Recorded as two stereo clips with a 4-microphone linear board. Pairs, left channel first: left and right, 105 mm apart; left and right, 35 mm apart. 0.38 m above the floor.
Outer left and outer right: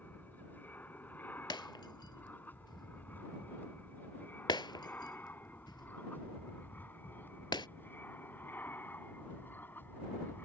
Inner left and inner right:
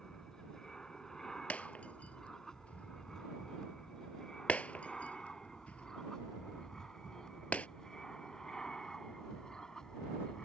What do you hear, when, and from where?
0.0 s an aircraft: 15° left (ahead or behind); by 10.4 s 20° left (ahead or behind)
1.5 s breaking glass: 45° left (ahead or behind)